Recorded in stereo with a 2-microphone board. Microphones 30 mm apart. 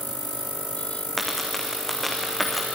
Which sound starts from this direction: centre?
A dropped coin, at 1.2 s.